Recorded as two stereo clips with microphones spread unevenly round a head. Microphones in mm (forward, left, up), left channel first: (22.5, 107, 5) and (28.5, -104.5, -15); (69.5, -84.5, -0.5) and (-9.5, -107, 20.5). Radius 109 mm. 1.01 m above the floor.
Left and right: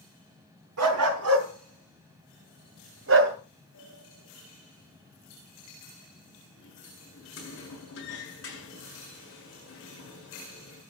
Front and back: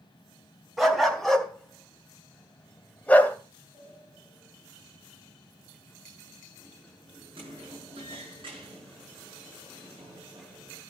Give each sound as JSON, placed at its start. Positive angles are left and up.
{"t": 0.8, "sound": "a dog barking", "azimuth_deg": -80, "distance_m": 4.0}
{"t": 3.7, "sound": "a sliding door", "azimuth_deg": 135, "distance_m": 8.5}